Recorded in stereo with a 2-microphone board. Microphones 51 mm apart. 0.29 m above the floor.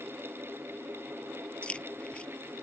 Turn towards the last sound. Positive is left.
turn(degrees=25)  # may be behind; listen again after turning